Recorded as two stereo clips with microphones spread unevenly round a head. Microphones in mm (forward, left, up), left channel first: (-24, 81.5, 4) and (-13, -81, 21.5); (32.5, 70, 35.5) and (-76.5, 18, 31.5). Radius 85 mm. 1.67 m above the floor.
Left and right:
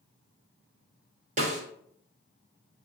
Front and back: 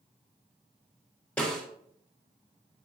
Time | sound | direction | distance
1.4 | a snare drum | 55° right | 1.5 m